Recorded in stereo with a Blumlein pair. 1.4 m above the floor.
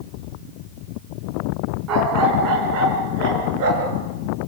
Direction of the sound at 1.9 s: 35° right.